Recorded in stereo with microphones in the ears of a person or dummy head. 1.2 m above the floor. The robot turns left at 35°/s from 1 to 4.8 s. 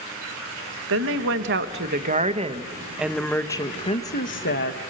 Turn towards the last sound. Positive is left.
turn(degrees=120)